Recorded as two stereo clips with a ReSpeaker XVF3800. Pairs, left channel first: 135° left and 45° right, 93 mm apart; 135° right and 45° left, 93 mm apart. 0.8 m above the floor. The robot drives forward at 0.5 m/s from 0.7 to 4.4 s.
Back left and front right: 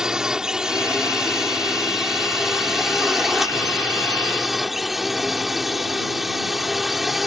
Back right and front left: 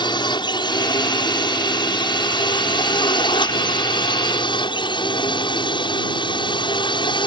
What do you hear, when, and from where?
0.0 s a drone: 125° right; by 7.3 s 130° right